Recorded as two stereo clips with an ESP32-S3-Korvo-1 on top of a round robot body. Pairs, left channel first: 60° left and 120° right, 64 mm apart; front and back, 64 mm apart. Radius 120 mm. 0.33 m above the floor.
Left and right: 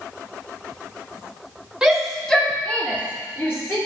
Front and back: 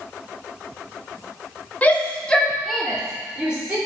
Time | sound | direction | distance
1.8 | a shout | 45° right | 1.6 m